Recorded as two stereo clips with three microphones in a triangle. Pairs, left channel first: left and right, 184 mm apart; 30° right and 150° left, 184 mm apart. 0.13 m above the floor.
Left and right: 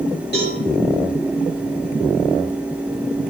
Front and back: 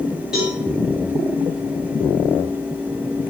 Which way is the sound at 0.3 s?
65° left.